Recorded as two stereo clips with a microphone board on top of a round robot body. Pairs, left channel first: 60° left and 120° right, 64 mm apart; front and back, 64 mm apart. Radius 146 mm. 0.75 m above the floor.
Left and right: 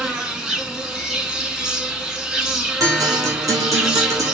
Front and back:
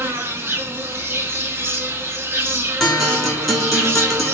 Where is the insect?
165° left, 1.3 m.